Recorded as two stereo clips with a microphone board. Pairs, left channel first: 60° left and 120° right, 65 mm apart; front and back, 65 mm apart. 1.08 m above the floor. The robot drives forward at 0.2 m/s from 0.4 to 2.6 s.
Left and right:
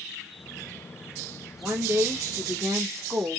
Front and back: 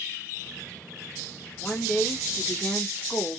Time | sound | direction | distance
1.6 | a woman speaking | 60° right | 0.9 m